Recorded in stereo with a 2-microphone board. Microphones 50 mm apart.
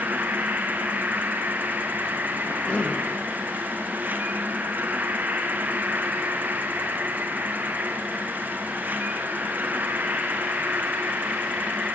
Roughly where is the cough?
Left.